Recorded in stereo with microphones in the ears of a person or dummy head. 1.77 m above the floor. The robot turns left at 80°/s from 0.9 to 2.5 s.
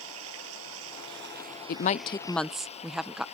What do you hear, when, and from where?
0.0 s running water: 95° right; by 3.4 s 140° left
1.7 s a woman speaking: 60° left; by 3.2 s 5° right